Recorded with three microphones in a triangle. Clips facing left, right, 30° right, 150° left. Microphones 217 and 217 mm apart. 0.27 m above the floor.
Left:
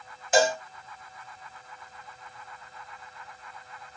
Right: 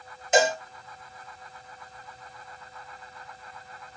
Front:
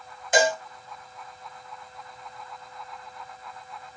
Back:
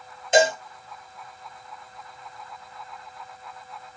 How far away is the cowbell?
About 1.4 m.